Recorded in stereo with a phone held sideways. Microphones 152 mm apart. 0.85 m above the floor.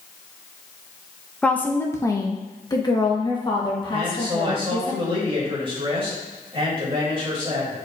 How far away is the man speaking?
About 2.5 m.